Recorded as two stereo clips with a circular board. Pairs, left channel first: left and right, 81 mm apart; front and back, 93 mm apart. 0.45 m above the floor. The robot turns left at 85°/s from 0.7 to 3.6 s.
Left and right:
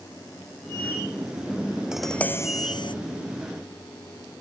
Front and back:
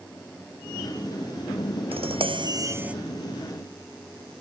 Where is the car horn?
No car horn in this recording.